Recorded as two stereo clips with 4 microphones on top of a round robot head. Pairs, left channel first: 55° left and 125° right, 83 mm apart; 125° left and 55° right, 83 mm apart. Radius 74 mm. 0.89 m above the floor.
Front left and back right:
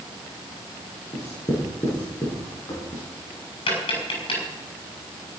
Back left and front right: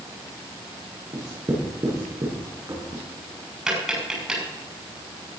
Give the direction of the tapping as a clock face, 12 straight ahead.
11 o'clock.